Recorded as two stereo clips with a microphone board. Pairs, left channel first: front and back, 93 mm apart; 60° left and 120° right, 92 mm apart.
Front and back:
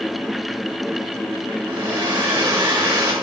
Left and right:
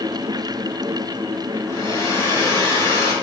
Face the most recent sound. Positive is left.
turn(degrees=120)